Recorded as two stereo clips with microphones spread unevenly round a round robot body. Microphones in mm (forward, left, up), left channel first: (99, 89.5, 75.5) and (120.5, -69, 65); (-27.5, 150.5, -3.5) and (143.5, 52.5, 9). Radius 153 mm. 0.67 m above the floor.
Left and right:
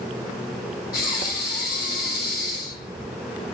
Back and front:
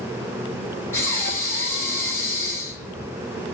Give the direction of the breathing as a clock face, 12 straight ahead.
10 o'clock.